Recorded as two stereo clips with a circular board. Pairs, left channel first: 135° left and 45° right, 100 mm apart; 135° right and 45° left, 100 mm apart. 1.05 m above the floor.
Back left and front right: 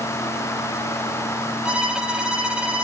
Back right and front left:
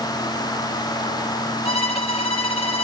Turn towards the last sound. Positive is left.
turn(degrees=-125)